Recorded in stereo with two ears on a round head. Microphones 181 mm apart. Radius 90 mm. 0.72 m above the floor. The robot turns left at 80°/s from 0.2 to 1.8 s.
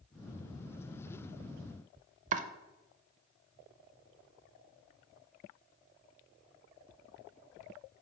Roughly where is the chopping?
Right.